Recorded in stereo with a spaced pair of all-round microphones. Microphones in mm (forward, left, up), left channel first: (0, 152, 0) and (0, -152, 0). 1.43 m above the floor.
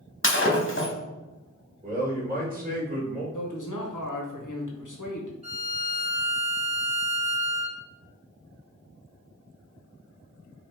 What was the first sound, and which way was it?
Breaking glass, 40° left (ahead or behind).